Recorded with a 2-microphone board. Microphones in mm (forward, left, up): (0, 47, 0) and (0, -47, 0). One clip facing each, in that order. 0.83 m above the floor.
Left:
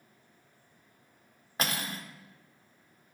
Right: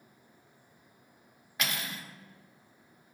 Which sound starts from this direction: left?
Cutlery clinking, at 1.6 s.